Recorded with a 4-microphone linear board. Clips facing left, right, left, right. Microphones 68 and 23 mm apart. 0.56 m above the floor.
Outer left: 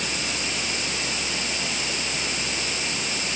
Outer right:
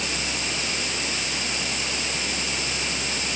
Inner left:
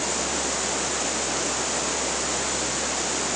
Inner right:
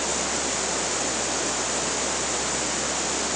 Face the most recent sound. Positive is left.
No sound to turn to.